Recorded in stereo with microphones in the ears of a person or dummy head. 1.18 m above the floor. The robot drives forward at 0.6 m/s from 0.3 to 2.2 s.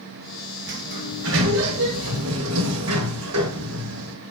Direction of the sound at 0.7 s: 55° right (ahead or behind).